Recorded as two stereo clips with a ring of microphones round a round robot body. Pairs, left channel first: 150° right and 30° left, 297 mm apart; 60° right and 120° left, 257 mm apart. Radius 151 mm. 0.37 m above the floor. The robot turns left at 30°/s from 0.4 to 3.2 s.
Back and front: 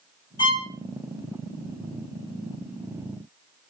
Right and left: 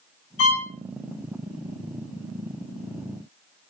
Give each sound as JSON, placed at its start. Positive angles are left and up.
{"t": 0.4, "sound": "a violin", "azimuth_deg": -75, "distance_m": 0.6}